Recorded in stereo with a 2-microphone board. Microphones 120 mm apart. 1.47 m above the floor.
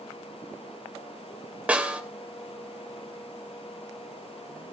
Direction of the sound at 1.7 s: 10° right (ahead or behind).